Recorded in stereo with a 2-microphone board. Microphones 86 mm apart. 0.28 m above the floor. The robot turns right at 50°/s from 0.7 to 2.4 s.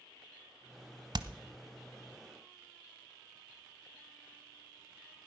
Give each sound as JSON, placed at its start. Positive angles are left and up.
{"t": 1.1, "sound": "hammering", "side_deg": -50, "distance_m": 0.8}